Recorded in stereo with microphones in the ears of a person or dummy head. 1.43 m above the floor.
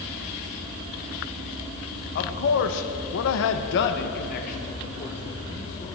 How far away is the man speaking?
About 1.2 m.